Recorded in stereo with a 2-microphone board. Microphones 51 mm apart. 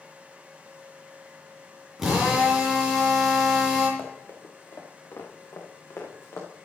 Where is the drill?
5° right (ahead or behind), 5 m.